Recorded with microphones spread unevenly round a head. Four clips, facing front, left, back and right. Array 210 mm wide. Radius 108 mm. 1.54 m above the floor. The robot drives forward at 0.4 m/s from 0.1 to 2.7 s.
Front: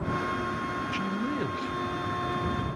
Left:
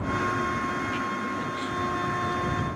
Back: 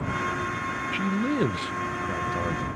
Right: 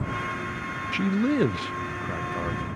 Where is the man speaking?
100° right, 0.5 m; by 2.7 s 150° right, 0.9 m.